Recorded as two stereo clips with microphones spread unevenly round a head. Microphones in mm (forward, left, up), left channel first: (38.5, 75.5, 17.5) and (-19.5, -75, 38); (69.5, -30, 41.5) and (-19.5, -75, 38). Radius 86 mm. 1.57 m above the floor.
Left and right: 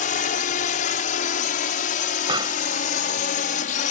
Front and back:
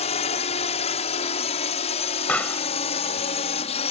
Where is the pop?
50° right.